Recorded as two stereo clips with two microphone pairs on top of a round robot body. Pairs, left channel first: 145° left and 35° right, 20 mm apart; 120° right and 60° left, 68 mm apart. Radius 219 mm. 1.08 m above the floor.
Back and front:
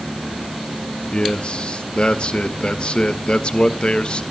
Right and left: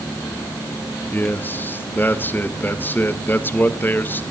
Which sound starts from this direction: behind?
A man speaking, at 1.1 s.